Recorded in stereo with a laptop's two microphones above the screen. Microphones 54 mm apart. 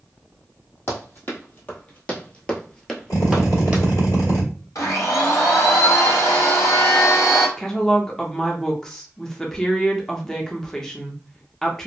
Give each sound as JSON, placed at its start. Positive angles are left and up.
{"t": 0.9, "sound": "running footsteps", "side_deg": 45, "distance_m": 1.5}
{"t": 3.1, "sound": "a drill", "side_deg": 75, "distance_m": 1.4}
{"t": 4.8, "sound": "a blender", "side_deg": 75, "distance_m": 1.4}
{"t": 7.6, "sound": "a woman speaking", "side_deg": 10, "distance_m": 0.7}